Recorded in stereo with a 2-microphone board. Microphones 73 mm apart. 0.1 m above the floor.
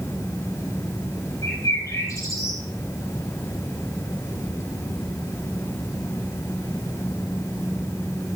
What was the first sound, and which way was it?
A bird, 45° left (ahead or behind).